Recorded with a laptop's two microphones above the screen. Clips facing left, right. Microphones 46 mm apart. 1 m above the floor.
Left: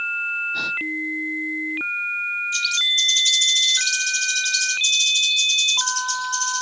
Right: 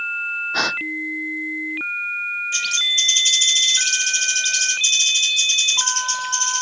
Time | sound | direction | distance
0.5 | a gasp | 75° right (ahead or behind) | ?
2.5 | a bird | 55° right (ahead or behind) | ?